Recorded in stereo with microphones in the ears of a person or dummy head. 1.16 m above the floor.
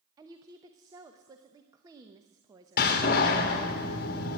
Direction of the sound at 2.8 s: 50° left (ahead or behind).